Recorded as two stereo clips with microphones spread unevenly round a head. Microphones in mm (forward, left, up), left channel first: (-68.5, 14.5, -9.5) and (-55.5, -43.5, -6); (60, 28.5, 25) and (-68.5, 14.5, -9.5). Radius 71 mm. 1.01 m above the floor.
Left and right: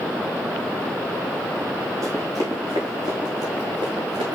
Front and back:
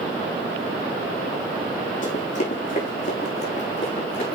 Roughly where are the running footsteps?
Ahead right.